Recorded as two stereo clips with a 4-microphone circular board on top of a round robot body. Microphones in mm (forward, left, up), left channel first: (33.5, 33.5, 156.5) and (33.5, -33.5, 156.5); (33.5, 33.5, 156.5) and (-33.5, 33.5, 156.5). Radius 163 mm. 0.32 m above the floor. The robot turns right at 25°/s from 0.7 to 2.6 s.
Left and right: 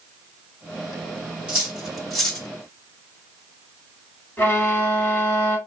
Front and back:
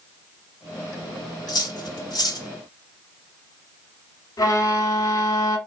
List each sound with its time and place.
1.5 s cutlery clinking: 15° right, 1.7 m; by 2.5 s 10° left, 1.7 m
4.4 s a violin: 30° left, 1.4 m